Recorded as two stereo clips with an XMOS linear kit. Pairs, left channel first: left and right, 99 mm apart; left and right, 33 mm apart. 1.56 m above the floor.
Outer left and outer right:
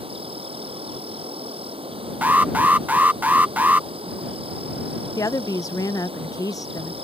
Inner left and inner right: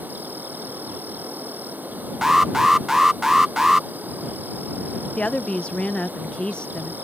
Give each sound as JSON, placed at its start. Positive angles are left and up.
{"t": 0.0, "sound": "an insect", "side_deg": -70}
{"t": 2.2, "sound": "an alarm", "side_deg": -15}
{"t": 5.2, "sound": "a woman speaking", "side_deg": 35}